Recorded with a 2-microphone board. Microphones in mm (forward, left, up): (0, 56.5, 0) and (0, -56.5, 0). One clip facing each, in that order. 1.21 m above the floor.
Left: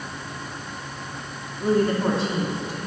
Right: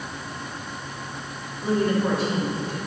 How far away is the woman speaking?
About 2.5 m.